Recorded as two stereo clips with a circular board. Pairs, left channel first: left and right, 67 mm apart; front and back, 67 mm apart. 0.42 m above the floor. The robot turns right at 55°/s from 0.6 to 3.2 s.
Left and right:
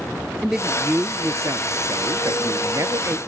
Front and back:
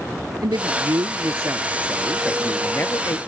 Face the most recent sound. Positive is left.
turn(degrees=-35)